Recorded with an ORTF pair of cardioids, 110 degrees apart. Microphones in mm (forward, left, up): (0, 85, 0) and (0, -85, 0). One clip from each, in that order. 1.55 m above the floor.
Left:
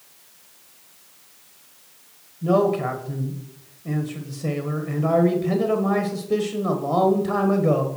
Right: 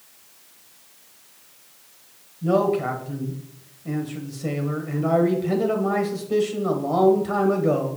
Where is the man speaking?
10° left, 1.4 m.